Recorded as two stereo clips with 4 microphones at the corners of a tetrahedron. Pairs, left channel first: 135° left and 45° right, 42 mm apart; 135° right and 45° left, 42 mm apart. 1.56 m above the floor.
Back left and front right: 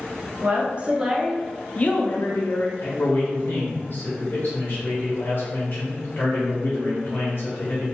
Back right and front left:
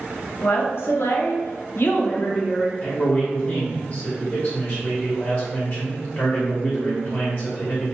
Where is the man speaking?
175° left, 0.8 m.